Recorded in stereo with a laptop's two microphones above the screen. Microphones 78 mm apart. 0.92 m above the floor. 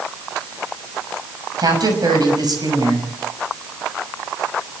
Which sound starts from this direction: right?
A woman speaking, at 1.6 s.